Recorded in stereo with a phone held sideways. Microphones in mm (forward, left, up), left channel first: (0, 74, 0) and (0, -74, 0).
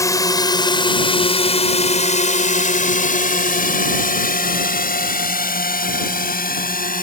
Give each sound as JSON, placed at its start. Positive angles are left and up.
{"t": 0.0, "sound": "a drone", "side_deg": 20}